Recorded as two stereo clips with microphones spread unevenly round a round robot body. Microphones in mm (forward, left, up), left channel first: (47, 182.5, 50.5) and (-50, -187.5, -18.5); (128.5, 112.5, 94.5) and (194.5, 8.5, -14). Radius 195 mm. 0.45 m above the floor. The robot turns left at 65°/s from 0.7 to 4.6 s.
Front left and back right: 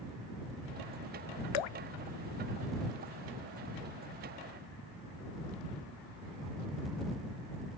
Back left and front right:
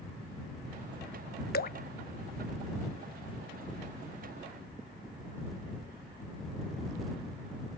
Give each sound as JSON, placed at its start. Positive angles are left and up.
{"t": 1.5, "sound": "dripping", "azimuth_deg": 80}